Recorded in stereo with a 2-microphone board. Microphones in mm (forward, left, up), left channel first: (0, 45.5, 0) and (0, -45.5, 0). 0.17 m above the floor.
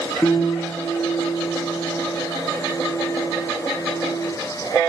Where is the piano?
30° left (ahead or behind), 1.4 m.